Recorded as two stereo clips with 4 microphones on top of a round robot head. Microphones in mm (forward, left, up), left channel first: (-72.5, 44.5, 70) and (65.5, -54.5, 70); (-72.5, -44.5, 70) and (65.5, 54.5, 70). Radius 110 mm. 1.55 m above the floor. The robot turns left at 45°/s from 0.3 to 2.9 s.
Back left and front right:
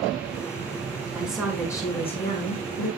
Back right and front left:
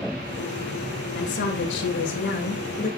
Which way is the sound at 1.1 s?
115° right.